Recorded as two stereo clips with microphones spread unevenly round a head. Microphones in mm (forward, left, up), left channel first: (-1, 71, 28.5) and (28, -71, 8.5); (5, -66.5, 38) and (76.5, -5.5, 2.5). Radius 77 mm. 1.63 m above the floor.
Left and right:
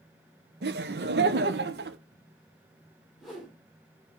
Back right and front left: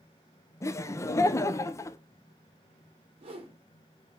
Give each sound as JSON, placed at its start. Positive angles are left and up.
{"t": 0.6, "sound": "laughter", "azimuth_deg": -100, "distance_m": 0.7}
{"t": 3.2, "sound": "a whoosh", "azimuth_deg": 10, "distance_m": 3.0}